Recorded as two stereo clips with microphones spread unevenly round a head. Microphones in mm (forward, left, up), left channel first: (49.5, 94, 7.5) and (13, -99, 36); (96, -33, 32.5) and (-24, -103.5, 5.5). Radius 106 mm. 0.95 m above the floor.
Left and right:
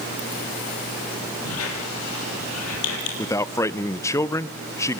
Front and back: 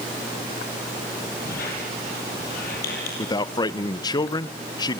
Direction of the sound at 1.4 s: 75° left.